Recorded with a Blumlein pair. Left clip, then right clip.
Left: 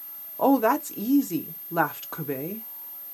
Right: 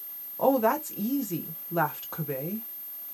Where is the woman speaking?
10° left, 0.7 m.